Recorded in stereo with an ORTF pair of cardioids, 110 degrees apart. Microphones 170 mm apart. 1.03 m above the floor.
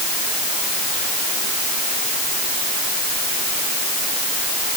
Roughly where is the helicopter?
I don't hear a helicopter.